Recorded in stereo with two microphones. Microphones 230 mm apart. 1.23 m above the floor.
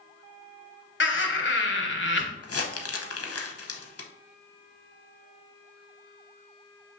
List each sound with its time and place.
1.0 s laughter: 55° left (ahead or behind), 1.0 m
2.4 s crumpling: 85° left, 0.6 m